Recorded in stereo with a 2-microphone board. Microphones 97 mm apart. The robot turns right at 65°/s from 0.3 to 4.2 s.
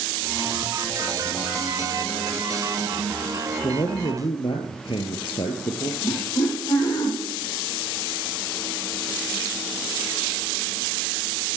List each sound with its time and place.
3.6 s a man speaking: 60° left, 3 m; by 5.9 s 95° left, 3 m
6.0 s laughter: 50° left (ahead or behind), 5.5 m